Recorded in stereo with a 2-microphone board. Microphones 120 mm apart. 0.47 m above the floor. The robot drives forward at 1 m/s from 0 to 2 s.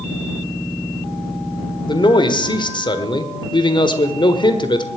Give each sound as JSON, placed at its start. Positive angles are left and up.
{"t": 1.9, "sound": "a man speaking", "side_deg": 40, "distance_m": 1.5}